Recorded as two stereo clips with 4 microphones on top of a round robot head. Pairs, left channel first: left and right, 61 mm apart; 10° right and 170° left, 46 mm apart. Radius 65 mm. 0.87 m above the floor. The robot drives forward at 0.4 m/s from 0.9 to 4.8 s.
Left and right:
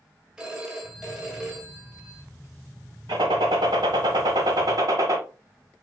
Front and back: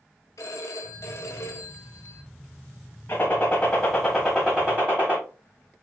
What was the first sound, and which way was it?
A phone ringing, 10° right.